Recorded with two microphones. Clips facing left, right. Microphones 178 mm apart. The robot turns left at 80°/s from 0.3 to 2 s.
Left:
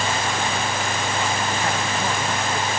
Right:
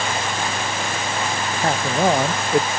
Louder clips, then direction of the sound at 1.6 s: Right 5 dB; 40° right.